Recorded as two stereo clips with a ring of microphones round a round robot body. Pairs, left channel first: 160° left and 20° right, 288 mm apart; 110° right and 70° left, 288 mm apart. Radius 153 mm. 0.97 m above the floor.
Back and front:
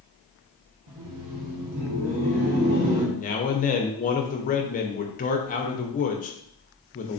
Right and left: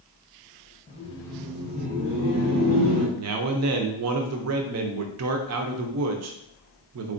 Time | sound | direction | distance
0.9 | laughter | 50° right | 1.0 m
3.1 | a man speaking | 95° left | 0.5 m